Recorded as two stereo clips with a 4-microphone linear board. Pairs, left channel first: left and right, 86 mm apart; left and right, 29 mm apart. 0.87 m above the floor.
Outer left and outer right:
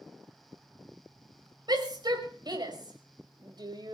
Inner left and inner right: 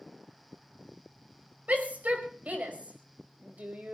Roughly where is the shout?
Right.